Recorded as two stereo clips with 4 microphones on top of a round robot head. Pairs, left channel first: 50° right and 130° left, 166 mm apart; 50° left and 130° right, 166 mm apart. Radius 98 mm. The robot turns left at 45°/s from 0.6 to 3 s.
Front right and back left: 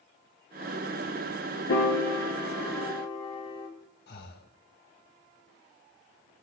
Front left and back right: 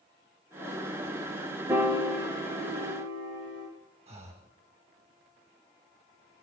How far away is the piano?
About 5 m.